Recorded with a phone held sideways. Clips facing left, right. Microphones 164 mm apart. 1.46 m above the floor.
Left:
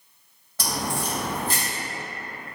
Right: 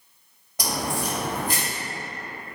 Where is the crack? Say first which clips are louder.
Right 1 dB; 15° right (ahead or behind), 1.8 m.